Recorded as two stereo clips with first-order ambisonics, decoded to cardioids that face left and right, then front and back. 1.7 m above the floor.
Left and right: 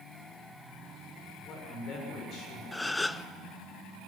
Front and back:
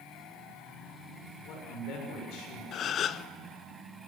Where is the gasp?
15° left, 0.5 m.